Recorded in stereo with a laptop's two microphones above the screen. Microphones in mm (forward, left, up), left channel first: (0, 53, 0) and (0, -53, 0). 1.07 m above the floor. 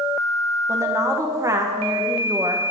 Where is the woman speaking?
30° right (ahead or behind), 0.8 m.